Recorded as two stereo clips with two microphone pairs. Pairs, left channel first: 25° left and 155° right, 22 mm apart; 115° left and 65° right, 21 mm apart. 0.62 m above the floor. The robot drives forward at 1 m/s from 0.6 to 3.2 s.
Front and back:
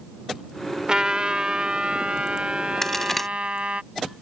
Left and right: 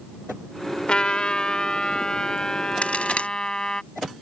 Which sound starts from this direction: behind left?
A trumpet, at 0.9 s.